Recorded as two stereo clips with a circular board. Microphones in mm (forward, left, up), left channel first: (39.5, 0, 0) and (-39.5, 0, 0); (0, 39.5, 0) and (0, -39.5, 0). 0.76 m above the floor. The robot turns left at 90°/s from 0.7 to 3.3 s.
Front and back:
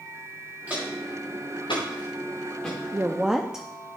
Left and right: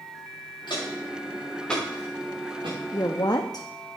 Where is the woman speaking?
130° left, 0.7 m; by 3.7 s 100° left, 0.7 m.